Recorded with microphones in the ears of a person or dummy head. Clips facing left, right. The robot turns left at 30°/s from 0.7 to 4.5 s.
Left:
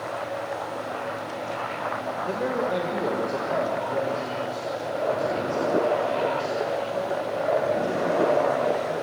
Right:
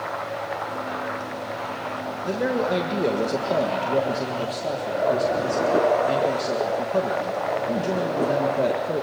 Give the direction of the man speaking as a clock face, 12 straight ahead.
1 o'clock.